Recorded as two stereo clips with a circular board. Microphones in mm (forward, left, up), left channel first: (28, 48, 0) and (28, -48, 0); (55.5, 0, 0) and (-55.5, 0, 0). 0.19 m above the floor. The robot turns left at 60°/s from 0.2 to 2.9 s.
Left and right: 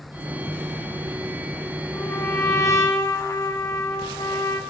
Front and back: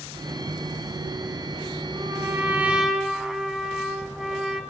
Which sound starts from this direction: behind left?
A trumpet, at 1.9 s.